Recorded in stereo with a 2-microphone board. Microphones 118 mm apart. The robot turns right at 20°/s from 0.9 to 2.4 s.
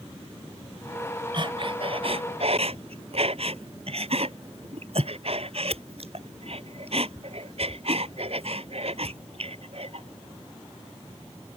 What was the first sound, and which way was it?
Breathing, 45° right (ahead or behind).